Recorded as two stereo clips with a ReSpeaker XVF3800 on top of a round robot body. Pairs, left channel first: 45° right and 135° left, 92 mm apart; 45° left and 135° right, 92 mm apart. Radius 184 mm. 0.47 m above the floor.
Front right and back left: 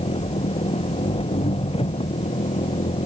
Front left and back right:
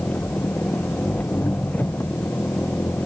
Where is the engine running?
30° right.